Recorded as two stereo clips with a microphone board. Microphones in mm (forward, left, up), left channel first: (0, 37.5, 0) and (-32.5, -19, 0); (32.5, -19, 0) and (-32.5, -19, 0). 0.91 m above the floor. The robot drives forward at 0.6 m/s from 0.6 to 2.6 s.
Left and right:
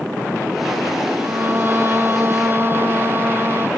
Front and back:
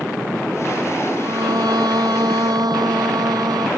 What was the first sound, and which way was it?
A violin, 175° right.